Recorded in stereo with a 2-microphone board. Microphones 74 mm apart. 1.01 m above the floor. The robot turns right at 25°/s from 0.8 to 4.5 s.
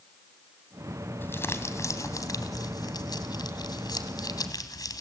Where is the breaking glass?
I don't hear breaking glass.